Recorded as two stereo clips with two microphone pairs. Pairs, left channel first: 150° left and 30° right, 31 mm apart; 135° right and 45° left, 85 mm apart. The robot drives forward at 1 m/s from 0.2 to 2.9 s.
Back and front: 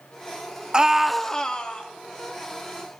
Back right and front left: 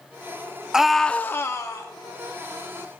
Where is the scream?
25° right, 0.7 m; by 1.9 s 170° right, 1.0 m.